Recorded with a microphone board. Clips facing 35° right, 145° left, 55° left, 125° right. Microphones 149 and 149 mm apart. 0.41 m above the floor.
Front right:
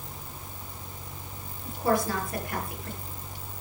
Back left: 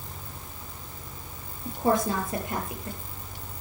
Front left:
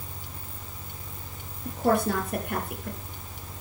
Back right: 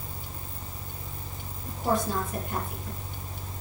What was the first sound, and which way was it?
A woman speaking, 80° left.